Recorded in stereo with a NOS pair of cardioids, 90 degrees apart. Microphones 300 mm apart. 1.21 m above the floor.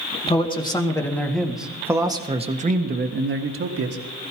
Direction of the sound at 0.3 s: 20° left.